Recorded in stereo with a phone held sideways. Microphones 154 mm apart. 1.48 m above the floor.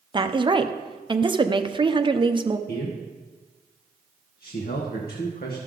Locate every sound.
0.1 s a woman speaking: 30° right (ahead or behind), 0.6 m
2.7 s a man speaking: 75° left (ahead or behind), 1.3 m